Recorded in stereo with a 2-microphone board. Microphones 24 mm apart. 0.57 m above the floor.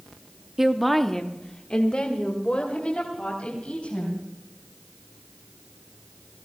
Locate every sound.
0.6 s a woman speaking: 15° right (ahead or behind), 0.9 m; by 4.3 s 50° left (ahead or behind), 4.5 m